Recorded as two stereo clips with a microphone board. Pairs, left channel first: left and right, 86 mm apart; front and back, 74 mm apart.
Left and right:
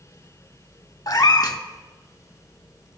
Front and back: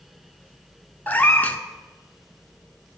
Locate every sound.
1.1 s a cat meowing: 60° left, 0.6 m